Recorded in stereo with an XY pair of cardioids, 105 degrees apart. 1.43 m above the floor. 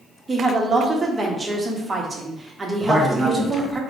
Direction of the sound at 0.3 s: 20° right.